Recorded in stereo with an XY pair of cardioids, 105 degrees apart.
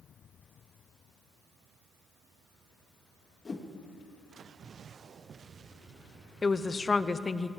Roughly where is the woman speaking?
Ahead left.